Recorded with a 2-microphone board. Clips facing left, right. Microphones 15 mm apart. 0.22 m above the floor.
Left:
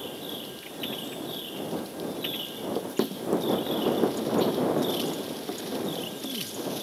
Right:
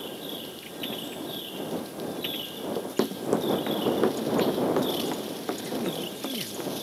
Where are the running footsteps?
5° left (ahead or behind); by 6.6 s 75° right (ahead or behind).